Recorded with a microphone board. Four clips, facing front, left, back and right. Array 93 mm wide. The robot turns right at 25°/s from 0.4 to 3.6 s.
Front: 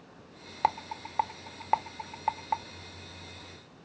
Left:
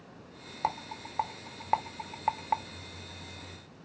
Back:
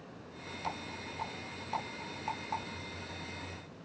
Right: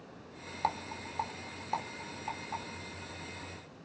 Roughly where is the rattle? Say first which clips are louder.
Left 1 dB, front 12 dB; ahead.